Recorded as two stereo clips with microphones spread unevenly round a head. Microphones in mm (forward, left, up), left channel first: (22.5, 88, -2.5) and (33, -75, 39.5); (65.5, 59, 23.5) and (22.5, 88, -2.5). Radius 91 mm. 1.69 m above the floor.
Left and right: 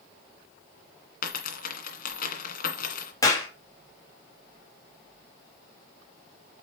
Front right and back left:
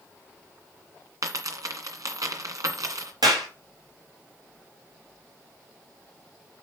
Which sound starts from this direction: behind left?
A dropped coin, at 1.2 s.